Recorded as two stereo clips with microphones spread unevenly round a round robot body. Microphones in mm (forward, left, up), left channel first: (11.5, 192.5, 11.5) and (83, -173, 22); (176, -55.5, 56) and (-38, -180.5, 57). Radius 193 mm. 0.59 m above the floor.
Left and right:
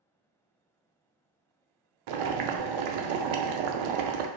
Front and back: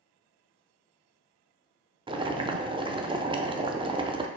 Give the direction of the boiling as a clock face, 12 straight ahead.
2 o'clock.